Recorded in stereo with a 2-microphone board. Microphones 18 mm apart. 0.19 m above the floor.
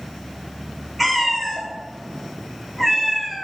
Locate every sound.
1.0 s a cat meowing: 10° right (ahead or behind), 1.2 m